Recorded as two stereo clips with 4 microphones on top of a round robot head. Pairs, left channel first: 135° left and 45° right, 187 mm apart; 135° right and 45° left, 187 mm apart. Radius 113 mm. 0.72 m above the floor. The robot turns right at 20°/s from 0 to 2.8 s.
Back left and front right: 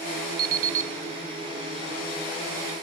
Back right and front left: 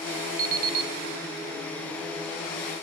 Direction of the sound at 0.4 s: Straight ahead.